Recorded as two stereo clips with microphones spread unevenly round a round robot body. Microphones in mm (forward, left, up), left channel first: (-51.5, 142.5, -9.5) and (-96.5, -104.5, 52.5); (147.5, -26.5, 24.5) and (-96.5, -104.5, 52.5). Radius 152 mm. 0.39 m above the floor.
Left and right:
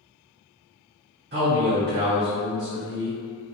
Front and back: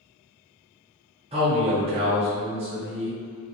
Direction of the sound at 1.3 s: 110° right.